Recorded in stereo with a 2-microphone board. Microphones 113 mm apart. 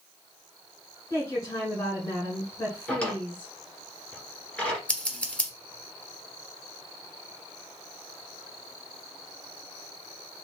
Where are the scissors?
10° left (ahead or behind), 0.9 m.